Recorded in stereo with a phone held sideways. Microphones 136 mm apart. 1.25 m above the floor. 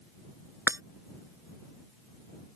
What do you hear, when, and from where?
0.7 s breaking glass: 20° right (ahead or behind)